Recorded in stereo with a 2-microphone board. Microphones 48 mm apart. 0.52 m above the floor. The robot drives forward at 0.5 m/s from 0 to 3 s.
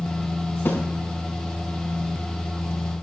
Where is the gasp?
I don't hear a gasp.